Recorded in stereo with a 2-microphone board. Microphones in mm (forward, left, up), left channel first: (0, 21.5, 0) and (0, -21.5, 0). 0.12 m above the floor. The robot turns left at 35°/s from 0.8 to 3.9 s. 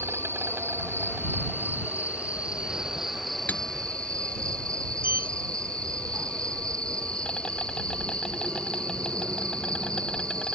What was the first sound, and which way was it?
An insect, 95° right.